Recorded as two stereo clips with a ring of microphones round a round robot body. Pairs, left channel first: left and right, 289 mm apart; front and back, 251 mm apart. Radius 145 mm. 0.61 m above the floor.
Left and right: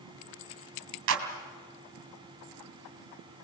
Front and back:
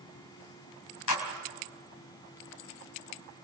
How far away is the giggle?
I don't hear a giggle.